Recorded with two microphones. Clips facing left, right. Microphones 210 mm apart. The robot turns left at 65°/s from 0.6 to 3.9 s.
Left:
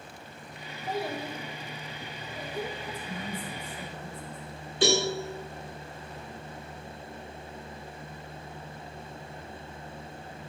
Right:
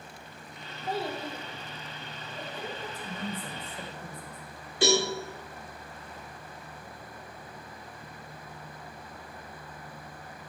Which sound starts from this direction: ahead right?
A woman speaking, at 2.8 s.